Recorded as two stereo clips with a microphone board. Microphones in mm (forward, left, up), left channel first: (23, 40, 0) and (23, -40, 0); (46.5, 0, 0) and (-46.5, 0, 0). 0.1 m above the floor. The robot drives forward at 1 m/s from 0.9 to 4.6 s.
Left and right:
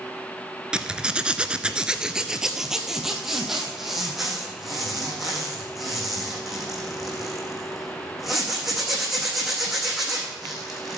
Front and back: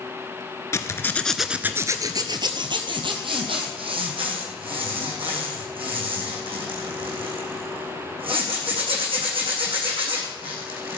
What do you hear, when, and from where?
0.7 s a zipper: 20° right, 0.9 m; by 11.0 s 175° right, 3.5 m